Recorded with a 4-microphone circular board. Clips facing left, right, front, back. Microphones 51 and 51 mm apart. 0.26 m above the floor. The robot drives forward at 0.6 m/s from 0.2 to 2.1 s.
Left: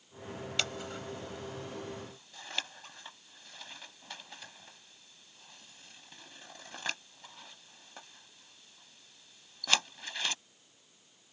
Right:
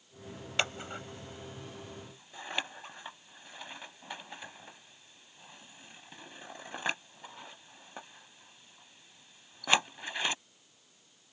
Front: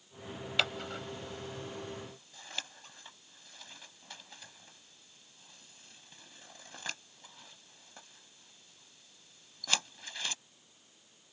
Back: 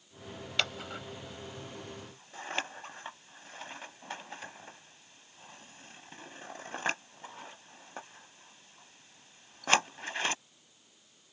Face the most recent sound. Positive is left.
turn(degrees=-155)